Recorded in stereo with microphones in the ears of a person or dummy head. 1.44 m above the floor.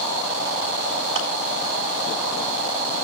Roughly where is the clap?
Right.